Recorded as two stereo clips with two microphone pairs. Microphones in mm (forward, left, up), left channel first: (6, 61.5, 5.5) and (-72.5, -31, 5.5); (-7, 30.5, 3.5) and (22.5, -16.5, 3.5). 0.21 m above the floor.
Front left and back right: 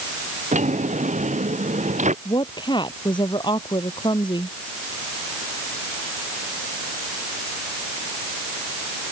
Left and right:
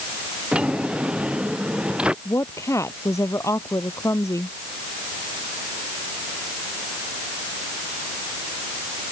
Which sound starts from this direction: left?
A woman speaking, at 2.2 s.